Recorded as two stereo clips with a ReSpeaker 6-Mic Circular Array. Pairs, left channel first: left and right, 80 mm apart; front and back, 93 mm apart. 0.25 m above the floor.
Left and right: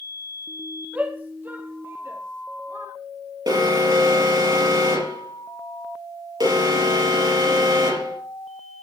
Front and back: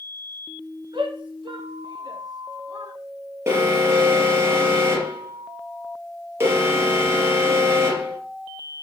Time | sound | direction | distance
0.9 | a shout | 160° right | 3 m
3.5 | an alarm | 115° right | 4.5 m